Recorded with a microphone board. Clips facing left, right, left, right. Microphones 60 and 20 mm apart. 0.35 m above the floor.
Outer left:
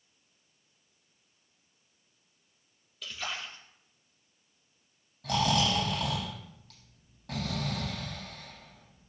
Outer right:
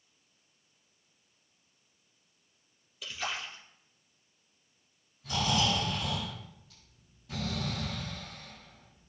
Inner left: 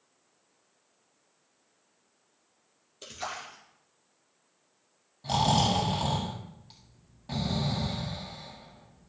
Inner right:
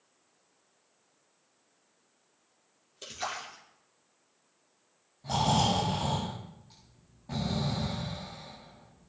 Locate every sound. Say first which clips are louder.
3.0 s a splash: outer right 1 dB, inner right 1 dB; 5° right (ahead or behind), 5 m
5.2 s snoring: outer left 2 dB, inner left 2 dB; 75° left (ahead or behind), 7.5 m